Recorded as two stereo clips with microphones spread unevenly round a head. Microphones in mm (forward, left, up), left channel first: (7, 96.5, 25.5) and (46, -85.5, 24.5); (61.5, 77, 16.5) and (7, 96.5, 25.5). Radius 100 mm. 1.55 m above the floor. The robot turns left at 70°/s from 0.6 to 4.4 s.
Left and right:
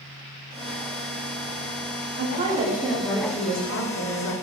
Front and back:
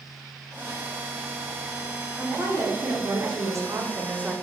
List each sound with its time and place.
2.2 s a woman speaking: 120° right, 0.5 m; by 4.3 s 90° left, 0.5 m